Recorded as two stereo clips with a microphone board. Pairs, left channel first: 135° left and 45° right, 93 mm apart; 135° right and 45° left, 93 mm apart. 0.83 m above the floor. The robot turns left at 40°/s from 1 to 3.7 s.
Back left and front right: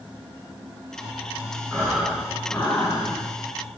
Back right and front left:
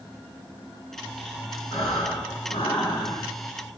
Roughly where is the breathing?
Behind right.